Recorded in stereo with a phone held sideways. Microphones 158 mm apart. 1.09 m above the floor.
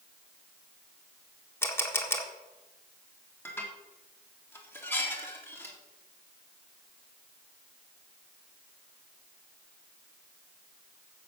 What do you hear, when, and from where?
1.6 s a camera shutter: 15° left (ahead or behind), 1.6 m
3.5 s dishes clattering: 15° left (ahead or behind), 1.8 m